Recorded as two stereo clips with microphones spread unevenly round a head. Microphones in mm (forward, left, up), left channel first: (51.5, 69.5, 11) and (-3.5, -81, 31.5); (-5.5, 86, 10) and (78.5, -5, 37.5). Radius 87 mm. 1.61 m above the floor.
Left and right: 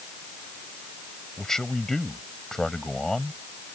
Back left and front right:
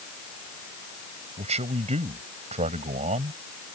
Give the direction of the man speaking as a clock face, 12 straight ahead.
1 o'clock.